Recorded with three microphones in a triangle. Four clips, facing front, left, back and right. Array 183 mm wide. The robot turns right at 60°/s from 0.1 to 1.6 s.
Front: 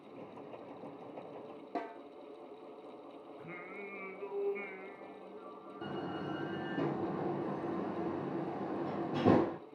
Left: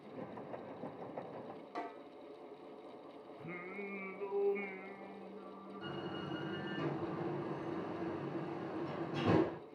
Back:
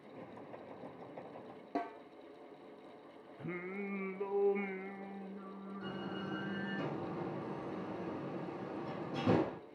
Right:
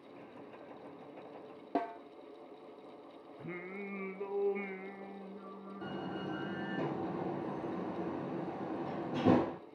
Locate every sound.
1.8 s a snare drum: 95° right, 2 m
3.4 s singing: 150° right, 1.1 m
5.8 s a door slam: 30° right, 4 m